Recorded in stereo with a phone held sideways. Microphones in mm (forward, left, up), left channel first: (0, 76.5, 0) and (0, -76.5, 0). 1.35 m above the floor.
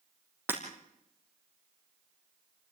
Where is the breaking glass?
15° right (ahead or behind), 4 m.